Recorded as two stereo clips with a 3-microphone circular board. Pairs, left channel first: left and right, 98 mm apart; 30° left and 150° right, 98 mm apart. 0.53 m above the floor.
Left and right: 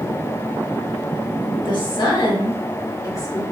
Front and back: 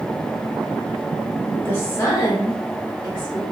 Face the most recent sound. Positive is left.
turn(degrees=40)